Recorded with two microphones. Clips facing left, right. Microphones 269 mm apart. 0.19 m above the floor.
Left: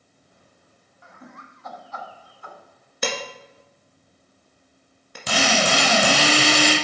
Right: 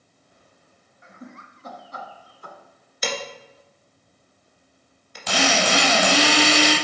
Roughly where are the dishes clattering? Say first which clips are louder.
Left 1 dB; left.